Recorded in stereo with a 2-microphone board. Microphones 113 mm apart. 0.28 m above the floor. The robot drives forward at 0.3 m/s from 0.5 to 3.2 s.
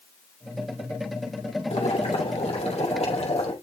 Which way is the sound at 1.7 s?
75° left (ahead or behind).